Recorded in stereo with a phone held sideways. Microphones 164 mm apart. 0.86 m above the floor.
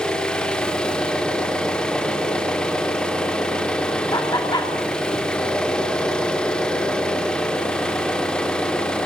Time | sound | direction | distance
0.0 | an engine running | 5° left (ahead or behind) | 2.5 m
4.1 | laughter | 25° left (ahead or behind) | 2 m